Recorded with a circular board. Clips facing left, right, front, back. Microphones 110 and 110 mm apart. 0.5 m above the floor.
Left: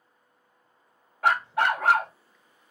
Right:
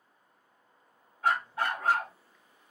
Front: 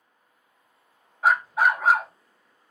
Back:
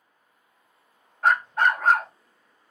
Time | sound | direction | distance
1.2 | a dog barking | 85° left | 0.5 m